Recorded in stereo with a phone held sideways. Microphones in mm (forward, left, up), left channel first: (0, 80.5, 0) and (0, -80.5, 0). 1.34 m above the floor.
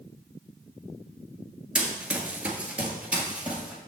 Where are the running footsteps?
5° right (ahead or behind), 1.4 m.